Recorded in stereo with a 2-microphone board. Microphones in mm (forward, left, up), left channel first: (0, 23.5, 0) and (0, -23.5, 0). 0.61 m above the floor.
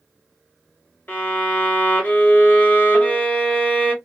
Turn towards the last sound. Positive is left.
turn(degrees=35)  # may be behind; listen again after turning